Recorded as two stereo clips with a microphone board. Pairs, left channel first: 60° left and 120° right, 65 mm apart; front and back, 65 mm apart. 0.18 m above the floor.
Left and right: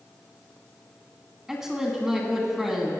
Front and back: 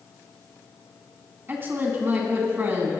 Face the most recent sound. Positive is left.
turn(degrees=165)